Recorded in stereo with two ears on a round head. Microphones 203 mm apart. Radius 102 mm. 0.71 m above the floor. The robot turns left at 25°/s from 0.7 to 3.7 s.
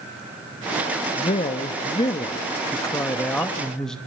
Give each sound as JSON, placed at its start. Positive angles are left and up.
{"t": 1.1, "sound": "a man speaking", "side_deg": 25, "distance_m": 0.9}